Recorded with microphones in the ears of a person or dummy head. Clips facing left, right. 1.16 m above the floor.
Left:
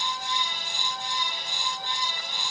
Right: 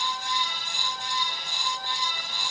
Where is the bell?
No bell in this recording.